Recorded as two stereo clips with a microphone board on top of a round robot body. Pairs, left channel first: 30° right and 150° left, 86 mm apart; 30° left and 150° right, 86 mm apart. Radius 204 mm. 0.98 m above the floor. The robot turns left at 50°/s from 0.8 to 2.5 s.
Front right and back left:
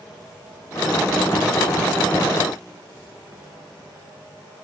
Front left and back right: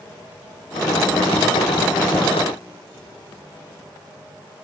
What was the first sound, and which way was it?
Only background noise.